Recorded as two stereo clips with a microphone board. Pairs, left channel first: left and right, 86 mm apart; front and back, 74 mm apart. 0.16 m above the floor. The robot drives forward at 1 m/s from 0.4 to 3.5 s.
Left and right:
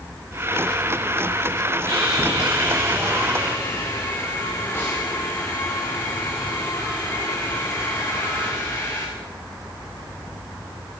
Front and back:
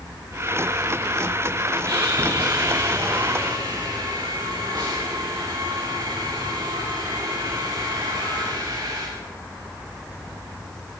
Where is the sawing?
140° left, 5.5 m; by 9.1 s 150° left, 7 m.